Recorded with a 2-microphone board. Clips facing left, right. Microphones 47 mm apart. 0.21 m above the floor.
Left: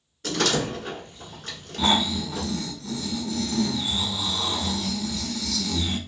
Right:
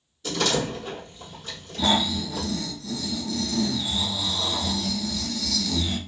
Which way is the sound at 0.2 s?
65° left (ahead or behind).